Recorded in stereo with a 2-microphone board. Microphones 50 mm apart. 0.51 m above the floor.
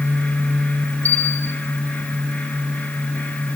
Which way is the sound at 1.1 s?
35° left (ahead or behind).